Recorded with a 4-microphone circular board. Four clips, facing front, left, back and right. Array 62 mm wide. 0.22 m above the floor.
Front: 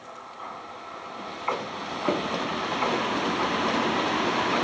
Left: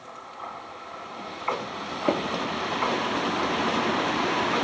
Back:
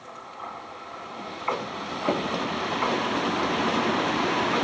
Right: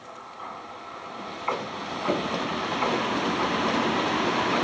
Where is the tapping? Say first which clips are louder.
Left 2 dB, even; 75° left, 1.2 m.